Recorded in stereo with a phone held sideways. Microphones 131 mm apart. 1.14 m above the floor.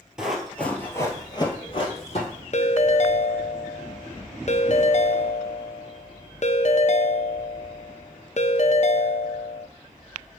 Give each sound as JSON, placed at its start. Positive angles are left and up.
{"t": 0.2, "sound": "running footsteps", "side_deg": -5, "distance_m": 1.6}
{"t": 2.5, "sound": "a ringtone", "side_deg": 55, "distance_m": 0.5}